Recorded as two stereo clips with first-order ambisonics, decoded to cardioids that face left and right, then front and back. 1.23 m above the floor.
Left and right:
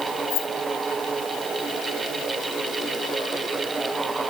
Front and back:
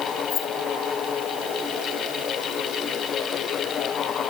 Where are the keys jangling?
55° left.